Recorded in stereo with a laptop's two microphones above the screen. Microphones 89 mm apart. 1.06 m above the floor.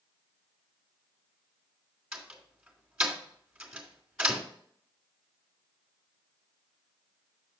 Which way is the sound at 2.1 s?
10° right (ahead or behind).